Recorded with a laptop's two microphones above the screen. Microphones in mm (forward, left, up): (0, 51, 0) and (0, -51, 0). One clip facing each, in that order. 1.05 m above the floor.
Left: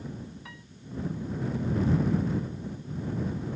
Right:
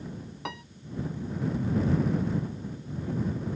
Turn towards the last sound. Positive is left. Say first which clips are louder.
# right 10 dB
turn(degrees=-75)  # may be behind; listen again after turning